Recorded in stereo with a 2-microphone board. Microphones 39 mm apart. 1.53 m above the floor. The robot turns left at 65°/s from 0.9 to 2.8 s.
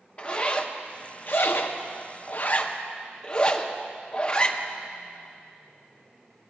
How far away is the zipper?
About 0.7 m.